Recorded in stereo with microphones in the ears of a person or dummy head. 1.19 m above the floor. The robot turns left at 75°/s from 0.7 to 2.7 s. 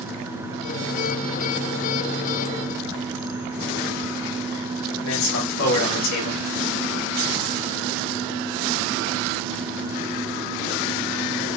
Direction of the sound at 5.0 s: 70° left (ahead or behind).